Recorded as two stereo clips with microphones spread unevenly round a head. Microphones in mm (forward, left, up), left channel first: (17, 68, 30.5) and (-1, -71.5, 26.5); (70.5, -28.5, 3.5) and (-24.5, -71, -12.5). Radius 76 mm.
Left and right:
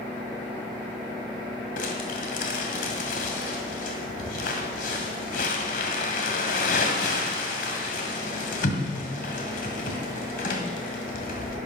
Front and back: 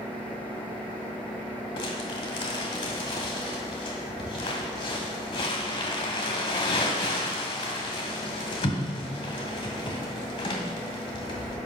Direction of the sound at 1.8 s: 60° left.